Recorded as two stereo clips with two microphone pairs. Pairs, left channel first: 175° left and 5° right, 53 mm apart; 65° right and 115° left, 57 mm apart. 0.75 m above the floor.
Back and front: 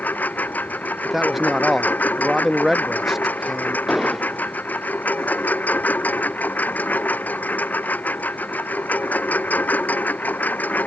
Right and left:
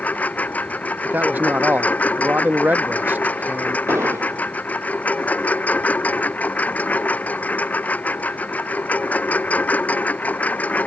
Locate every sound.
0.0 s a lawn mower: 125° right
1.1 s a man speaking: 85° left
3.9 s an explosion: 85° left